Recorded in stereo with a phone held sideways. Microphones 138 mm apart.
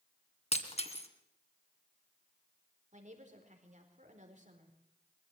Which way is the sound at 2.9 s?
60° right (ahead or behind).